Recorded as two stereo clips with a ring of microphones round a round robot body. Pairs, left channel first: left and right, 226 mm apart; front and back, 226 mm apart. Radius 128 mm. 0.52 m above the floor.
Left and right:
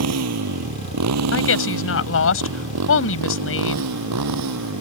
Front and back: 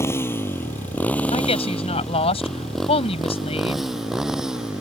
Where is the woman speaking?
65° left.